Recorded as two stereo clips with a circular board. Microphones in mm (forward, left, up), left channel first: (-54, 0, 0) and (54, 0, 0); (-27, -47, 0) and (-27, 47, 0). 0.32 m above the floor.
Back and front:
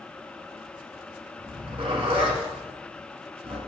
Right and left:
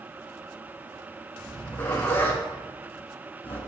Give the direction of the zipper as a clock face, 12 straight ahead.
1 o'clock.